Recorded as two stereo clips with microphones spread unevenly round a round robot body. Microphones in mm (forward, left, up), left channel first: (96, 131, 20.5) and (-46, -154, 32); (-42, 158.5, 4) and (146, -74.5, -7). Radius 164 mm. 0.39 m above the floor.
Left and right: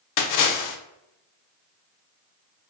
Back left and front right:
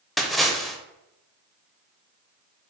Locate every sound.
0.2 s a splash: 40° left, 0.5 m